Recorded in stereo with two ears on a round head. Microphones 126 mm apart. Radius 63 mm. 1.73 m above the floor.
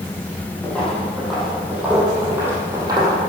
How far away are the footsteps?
About 4 m.